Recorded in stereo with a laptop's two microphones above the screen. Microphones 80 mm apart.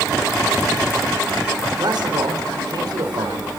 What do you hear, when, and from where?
1.8 s a man speaking: 65° right (ahead or behind), 4.5 m